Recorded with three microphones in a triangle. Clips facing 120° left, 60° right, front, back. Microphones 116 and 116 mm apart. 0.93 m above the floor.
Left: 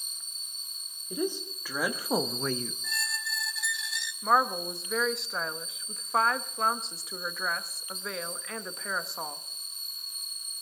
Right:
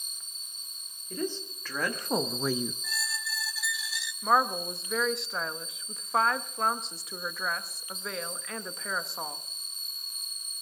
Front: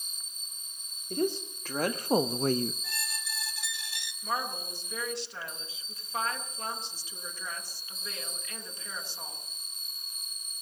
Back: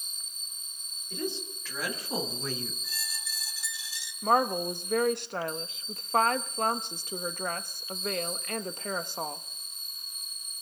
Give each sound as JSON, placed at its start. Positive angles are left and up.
{"t": 1.1, "sound": "a woman speaking", "azimuth_deg": 45, "distance_m": 2.0}
{"t": 2.8, "sound": "a squeak", "azimuth_deg": 30, "distance_m": 0.9}
{"t": 4.2, "sound": "a woman speaking", "azimuth_deg": -150, "distance_m": 1.0}